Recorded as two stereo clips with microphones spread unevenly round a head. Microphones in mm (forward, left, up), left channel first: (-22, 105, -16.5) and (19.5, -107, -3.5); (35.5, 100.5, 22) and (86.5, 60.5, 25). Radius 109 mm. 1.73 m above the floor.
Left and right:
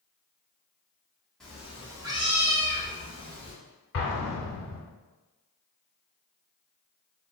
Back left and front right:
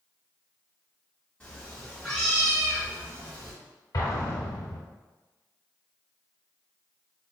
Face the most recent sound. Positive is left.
turn(degrees=130)